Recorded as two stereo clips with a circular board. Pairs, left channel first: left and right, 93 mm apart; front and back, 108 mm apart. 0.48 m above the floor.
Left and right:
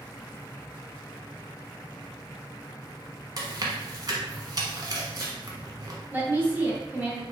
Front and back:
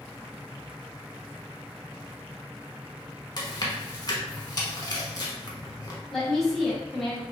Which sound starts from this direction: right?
A woman speaking, at 6.1 s.